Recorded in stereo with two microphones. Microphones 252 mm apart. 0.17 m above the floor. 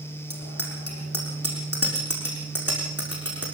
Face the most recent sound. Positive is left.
turn(degrees=65)  # may be behind; listen again after turning